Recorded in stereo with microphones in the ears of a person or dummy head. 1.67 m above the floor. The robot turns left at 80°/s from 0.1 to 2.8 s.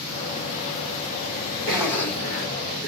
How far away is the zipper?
About 1.8 m.